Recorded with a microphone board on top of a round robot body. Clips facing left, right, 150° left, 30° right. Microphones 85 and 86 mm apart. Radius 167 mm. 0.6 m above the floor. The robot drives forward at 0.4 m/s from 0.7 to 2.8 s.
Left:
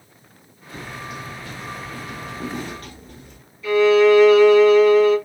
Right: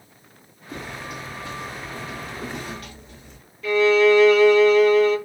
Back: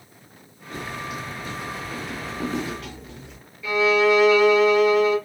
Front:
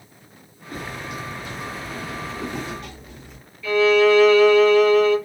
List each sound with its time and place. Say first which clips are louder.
0.7 s footsteps: even, even; 115° right, 0.9 m; by 3.4 s 130° left, 1.3 m
3.6 s a violin: left 3 dB, front 3 dB; 135° right, 3 m